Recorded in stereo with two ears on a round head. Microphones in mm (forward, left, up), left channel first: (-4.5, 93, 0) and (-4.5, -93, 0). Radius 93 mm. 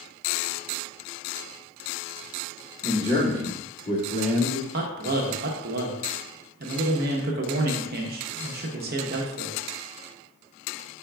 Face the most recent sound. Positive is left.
turn(degrees=-45)  # may be behind; listen again after turning